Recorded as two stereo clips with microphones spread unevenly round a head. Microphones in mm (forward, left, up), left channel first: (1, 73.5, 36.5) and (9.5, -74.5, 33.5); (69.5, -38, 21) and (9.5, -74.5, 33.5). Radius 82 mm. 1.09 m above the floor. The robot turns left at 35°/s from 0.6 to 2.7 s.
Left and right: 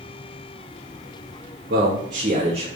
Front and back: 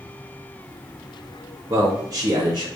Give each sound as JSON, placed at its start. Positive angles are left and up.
{"t": 1.7, "sound": "a man speaking", "azimuth_deg": -110, "distance_m": 2.0}